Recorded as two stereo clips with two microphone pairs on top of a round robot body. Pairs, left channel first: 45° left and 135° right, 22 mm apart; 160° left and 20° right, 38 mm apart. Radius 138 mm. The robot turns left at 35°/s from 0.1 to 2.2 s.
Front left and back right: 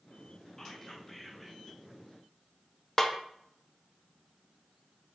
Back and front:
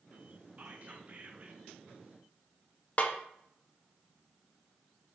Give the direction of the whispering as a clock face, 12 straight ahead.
12 o'clock.